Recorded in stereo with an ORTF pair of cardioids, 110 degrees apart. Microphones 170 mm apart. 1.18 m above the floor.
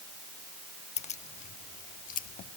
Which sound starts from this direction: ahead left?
Keys jangling, at 1.0 s.